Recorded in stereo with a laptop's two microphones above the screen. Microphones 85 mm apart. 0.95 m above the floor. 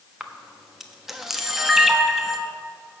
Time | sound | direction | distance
0.2 | a camera shutter | 5° right (ahead or behind) | 1.2 m